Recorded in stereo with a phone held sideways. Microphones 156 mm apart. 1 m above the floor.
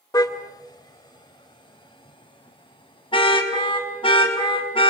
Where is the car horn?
25° left (ahead or behind), 2.5 m; by 4.9 s 35° left (ahead or behind), 6 m.